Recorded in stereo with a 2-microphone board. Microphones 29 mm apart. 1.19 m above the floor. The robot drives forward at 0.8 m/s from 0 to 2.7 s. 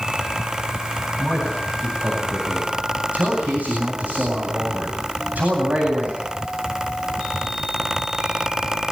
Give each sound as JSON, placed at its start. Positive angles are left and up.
{"t": 1.2, "sound": "a man speaking", "side_deg": -55, "distance_m": 10.0}